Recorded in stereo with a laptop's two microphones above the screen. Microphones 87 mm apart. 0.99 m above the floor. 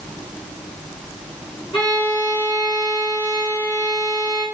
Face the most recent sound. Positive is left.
turn(degrees=70)  # may be behind; listen again after turning